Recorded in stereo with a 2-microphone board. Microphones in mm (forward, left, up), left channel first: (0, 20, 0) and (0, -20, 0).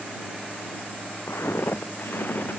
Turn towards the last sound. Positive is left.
turn(degrees=45)  # may be behind; listen again after turning